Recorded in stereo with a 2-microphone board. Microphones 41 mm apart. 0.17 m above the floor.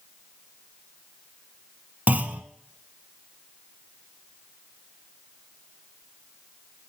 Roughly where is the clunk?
Right.